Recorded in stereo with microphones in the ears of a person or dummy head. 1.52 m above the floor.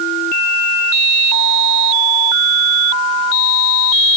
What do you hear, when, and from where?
Only background noise.